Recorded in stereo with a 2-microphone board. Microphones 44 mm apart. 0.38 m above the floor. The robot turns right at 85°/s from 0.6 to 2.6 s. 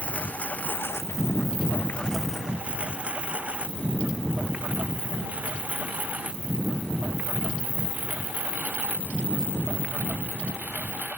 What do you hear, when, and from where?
0.0 s a lawn mower: 35° left (ahead or behind); by 11.2 s 40° right (ahead or behind)